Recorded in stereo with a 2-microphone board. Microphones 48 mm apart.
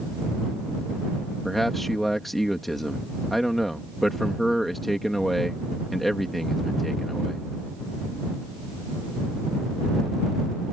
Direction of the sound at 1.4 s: Centre (ahead or behind).